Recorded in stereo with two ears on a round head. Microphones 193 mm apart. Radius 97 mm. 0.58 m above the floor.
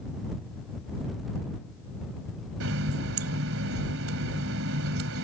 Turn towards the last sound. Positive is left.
turn(degrees=-60)  # may be behind; listen again after turning